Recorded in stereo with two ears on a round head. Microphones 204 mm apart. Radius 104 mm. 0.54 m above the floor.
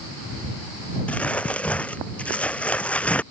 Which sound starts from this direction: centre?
Crumpling, at 1.1 s.